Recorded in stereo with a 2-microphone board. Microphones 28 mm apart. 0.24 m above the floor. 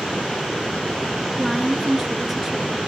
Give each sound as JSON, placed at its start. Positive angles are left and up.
{"t": 1.4, "sound": "a woman speaking", "side_deg": 0, "distance_m": 3.5}